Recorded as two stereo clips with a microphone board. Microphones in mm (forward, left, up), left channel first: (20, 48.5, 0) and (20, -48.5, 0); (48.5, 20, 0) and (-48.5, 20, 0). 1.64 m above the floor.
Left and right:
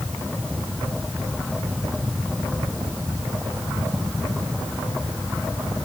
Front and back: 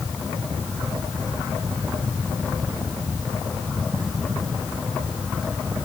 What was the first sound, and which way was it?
Only background noise.